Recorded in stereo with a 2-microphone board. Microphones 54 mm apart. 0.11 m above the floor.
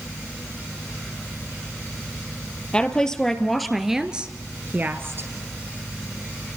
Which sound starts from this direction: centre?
A woman speaking, at 2.7 s.